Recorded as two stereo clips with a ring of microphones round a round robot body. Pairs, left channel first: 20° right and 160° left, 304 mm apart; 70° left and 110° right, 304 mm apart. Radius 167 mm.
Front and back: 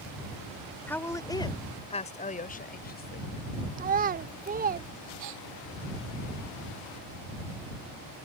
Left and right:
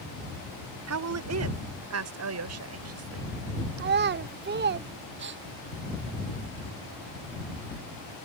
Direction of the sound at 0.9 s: 105° right.